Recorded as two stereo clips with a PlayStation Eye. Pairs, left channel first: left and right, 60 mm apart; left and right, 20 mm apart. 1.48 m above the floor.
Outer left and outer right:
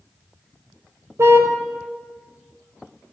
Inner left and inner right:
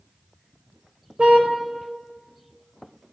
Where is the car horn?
55° right (ahead or behind), 3.5 m.